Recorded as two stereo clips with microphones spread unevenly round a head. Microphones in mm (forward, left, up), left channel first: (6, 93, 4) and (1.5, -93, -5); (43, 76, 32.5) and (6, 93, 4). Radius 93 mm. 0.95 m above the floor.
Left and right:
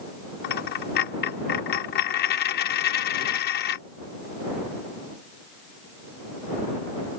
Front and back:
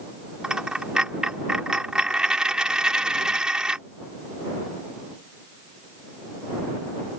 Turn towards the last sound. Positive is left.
turn(degrees=60)